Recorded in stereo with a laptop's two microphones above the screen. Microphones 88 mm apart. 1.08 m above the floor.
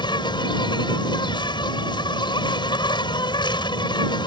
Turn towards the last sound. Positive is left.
turn(degrees=60)  # may be behind; listen again after turning